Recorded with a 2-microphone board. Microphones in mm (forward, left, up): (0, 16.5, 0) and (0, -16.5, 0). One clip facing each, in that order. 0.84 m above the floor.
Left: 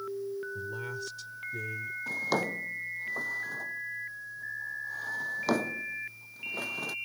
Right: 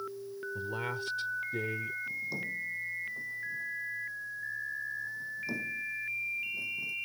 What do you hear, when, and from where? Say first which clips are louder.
0.6 s a man speaking: right 1 dB; 40° right (ahead or behind)
2.1 s a drawer: left 5 dB; 85° left